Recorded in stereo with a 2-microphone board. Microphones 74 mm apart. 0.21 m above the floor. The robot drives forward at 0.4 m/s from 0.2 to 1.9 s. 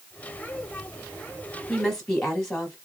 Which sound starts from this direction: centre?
A woman speaking, at 1.7 s.